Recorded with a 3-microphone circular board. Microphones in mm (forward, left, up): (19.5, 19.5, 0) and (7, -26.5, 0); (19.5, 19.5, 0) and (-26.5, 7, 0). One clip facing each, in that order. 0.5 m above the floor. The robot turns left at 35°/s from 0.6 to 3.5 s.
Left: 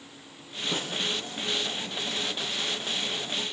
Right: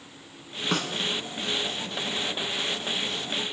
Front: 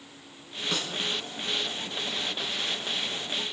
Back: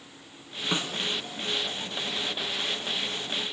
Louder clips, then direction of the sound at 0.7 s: Right 5 dB, back 3 dB; 95° right.